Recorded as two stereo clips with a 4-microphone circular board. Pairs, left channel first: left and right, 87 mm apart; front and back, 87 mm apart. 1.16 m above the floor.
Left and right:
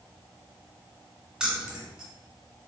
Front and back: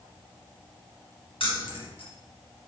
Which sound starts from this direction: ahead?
Keys jangling, at 1.4 s.